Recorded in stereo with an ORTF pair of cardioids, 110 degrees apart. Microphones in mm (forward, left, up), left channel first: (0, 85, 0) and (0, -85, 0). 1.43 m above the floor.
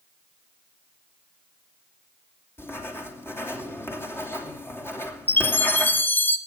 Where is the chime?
10° left, 1.1 m.